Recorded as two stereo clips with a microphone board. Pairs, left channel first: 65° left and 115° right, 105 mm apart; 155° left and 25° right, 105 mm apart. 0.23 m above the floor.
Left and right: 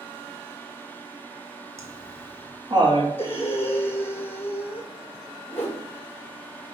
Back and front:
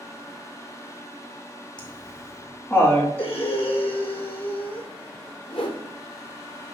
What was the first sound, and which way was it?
Laughter, 170° right.